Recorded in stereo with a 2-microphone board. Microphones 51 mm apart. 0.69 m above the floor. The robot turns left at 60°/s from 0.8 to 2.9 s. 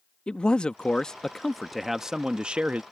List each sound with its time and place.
0.3 s a man speaking: 20° left (ahead or behind); by 2.8 s 20° right (ahead or behind)